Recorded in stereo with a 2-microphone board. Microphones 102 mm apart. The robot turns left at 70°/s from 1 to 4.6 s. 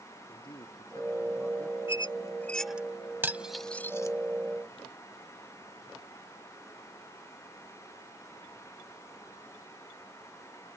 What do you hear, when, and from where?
0.3 s a man speaking: 50° left; by 1.8 s straight ahead
1.9 s a squeak: 55° left (ahead or behind); by 2.9 s 15° right (ahead or behind)
3.2 s cutlery clinking: 20° right (ahead or behind); by 4.2 s 35° left (ahead or behind)